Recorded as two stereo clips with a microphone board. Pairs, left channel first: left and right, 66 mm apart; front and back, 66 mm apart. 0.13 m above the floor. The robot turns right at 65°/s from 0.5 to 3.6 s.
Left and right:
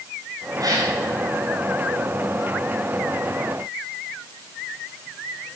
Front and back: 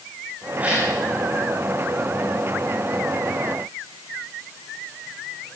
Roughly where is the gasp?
Behind right.